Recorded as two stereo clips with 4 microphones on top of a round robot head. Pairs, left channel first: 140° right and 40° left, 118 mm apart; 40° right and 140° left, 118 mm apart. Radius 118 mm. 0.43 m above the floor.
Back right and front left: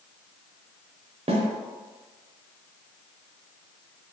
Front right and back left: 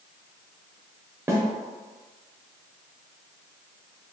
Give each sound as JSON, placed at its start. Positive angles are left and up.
{"t": 1.3, "sound": "a snare drum", "azimuth_deg": 75, "distance_m": 0.9}